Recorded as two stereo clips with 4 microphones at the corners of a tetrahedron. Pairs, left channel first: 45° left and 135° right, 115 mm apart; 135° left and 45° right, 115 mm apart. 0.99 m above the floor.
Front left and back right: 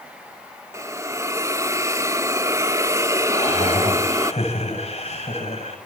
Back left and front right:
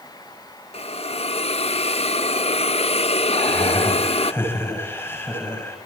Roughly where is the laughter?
Ahead left.